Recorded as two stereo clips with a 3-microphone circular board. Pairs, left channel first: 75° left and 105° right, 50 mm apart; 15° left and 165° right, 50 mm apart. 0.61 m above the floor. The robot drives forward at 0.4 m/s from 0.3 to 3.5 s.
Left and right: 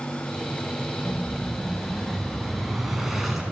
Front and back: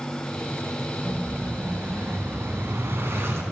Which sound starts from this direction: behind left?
An explosion, at 1.1 s.